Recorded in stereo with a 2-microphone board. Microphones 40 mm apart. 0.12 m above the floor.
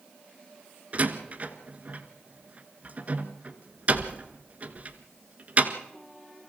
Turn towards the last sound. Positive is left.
turn(degrees=-35)  # may be behind; listen again after turning